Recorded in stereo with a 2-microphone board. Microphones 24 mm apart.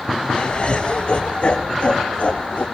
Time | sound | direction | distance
0.3 | laughter | 45° left (ahead or behind) | 1.9 m